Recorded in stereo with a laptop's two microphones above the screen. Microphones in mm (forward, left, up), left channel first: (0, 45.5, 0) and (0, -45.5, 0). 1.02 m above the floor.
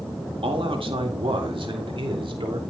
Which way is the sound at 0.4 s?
75° right (ahead or behind).